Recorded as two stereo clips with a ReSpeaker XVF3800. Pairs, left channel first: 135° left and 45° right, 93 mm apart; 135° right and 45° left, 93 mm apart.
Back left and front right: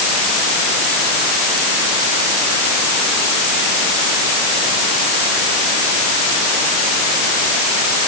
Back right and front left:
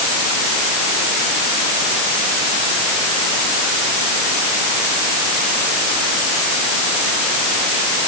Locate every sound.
Only background noise.